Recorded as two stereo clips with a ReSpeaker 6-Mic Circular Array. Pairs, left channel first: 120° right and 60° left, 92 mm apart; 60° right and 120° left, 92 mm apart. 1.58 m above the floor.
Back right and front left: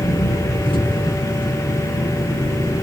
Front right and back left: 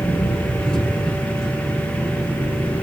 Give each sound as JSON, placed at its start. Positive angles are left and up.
{"t": 0.0, "sound": "an engine running", "azimuth_deg": -140, "distance_m": 7.5}